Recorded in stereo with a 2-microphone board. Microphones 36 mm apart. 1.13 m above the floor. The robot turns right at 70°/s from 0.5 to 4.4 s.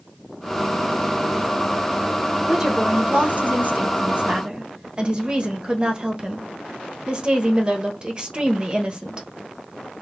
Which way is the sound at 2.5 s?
170° right.